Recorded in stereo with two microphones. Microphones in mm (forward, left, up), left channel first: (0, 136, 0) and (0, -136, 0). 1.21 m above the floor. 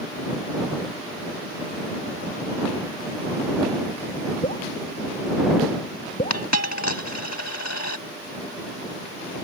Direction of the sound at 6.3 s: 75° left (ahead or behind).